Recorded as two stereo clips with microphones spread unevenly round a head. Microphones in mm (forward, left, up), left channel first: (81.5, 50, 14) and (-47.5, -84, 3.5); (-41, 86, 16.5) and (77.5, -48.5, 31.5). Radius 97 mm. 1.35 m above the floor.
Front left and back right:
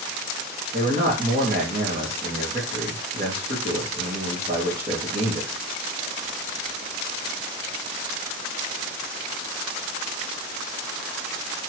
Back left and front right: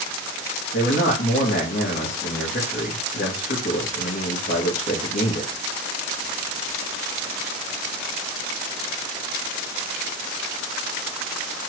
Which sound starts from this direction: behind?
A man speaking, at 0.7 s.